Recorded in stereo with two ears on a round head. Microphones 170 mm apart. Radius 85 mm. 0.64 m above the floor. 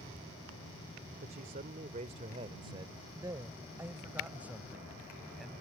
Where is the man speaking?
55° right (ahead or behind); by 5.5 s centre (ahead or behind).